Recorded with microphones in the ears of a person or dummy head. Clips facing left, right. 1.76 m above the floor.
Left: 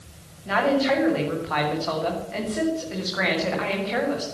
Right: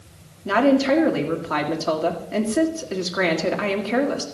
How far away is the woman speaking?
About 2 m.